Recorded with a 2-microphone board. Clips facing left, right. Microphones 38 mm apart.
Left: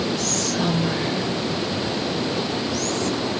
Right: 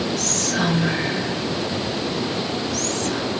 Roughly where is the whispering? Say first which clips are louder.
Right 1 dB; right.